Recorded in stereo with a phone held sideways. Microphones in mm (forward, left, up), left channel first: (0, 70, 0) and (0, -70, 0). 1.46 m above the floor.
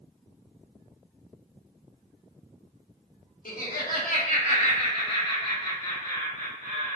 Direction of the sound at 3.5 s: 80° left.